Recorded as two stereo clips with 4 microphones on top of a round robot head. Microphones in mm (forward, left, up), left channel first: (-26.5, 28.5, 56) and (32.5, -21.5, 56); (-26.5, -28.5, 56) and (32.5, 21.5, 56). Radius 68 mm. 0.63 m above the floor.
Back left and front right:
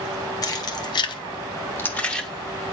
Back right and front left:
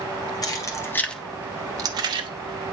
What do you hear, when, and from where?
0.4 s keys jangling: straight behind, 1.2 m; by 2.3 s 55° left, 1.2 m